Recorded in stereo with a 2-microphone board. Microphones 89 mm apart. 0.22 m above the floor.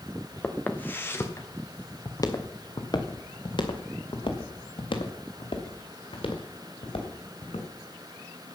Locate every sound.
0.4 s footsteps: 15° left (ahead or behind), 2.0 m; by 7.7 s 85° left, 4.5 m